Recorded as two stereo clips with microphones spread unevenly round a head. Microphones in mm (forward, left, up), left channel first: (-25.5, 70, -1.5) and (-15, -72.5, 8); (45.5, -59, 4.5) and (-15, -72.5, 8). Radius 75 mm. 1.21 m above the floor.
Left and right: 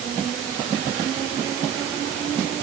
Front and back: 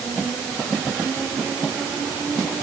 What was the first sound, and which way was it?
Only background noise.